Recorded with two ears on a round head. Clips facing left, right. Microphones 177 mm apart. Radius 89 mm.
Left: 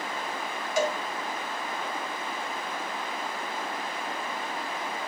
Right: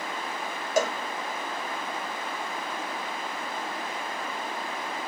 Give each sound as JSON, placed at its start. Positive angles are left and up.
{"t": 0.8, "sound": "a cowbell", "side_deg": -40, "distance_m": 0.8}